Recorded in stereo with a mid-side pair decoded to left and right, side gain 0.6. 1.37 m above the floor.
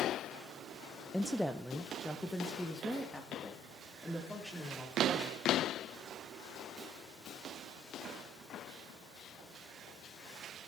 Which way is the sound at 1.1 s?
Straight ahead.